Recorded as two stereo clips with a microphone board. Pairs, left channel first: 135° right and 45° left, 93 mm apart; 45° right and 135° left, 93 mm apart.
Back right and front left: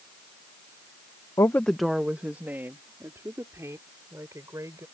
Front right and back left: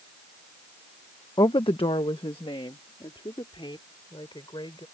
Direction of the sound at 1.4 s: 90° right.